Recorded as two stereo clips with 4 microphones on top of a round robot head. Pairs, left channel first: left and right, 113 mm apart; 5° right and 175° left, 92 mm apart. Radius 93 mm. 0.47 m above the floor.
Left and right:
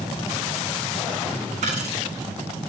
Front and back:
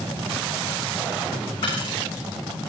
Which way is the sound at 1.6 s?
55° right.